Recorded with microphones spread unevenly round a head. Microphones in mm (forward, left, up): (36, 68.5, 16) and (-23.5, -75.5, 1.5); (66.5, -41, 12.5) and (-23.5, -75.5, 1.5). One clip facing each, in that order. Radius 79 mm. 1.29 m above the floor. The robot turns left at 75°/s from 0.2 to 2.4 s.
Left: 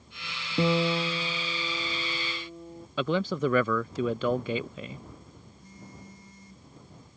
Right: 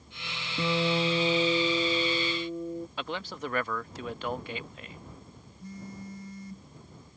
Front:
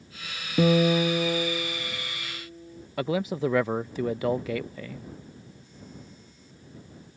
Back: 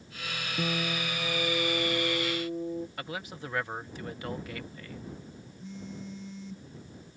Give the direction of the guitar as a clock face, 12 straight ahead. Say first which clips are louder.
Left 2 dB, front 13 dB; 12 o'clock.